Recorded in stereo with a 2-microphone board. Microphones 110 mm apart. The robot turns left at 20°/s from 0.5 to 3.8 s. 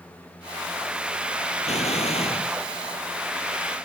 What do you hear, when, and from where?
1.6 s an explosion: 75° left (ahead or behind); by 2.5 s 60° left (ahead or behind)